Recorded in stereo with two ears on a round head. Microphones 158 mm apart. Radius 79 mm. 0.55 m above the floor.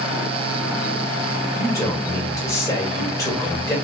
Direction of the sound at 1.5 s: 20° left (ahead or behind).